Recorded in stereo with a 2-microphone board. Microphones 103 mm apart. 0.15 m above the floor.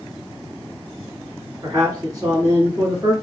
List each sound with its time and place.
1.6 s a man speaking: 40° right (ahead or behind), 1.8 m